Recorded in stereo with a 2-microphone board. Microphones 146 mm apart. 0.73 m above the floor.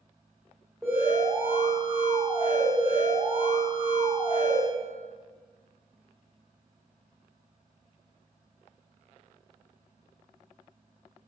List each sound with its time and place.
0.8 s an alarm: centre (ahead or behind), 1.7 m